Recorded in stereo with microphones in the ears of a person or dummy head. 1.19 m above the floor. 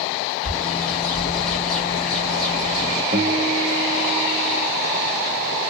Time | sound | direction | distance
0.4 | a bird | 5° left (ahead or behind) | 1.8 m
3.1 | a guitar | 30° right (ahead or behind) | 0.9 m